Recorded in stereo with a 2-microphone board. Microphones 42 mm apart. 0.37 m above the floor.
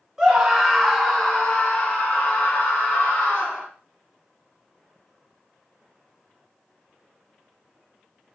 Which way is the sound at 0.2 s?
10° right (ahead or behind).